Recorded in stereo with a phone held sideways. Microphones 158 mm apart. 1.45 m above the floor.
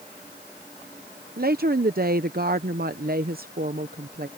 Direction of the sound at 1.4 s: 65° right (ahead or behind).